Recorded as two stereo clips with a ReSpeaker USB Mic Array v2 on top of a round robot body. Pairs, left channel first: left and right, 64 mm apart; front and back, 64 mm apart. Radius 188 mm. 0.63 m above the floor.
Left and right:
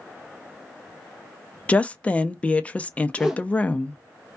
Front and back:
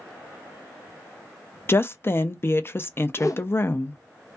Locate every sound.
1.7 s a woman speaking: 30° left, 0.6 m
3.2 s a whoosh: 10° right, 0.7 m